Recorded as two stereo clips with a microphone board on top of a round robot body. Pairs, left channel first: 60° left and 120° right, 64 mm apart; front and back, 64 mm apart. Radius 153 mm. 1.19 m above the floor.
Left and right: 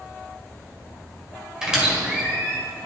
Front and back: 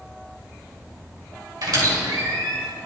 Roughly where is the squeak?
Behind.